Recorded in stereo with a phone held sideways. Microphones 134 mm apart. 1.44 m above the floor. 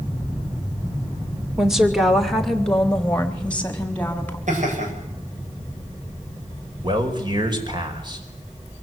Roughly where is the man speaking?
Right.